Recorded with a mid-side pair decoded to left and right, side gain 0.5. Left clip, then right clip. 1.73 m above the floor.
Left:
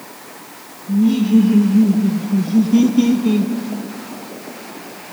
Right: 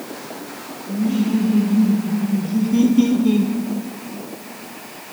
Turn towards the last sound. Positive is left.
turn(degrees=0)